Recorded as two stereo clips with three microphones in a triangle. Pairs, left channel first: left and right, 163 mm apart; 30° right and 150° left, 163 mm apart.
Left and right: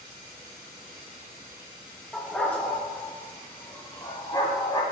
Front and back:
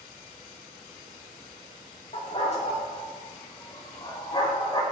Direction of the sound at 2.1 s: 5° left.